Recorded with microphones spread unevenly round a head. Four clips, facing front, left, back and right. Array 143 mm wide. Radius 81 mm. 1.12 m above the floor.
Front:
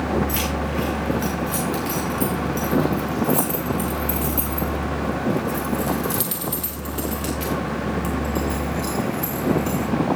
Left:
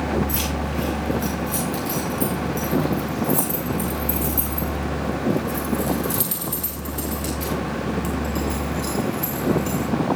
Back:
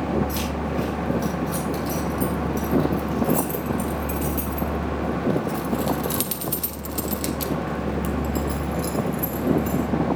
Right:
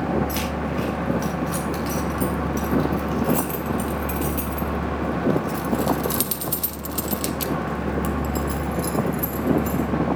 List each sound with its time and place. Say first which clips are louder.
0.3 s keys jangling: right 1 dB, front 2 dB; 50° right, 4 m; by 10.2 s 170° left, 1.9 m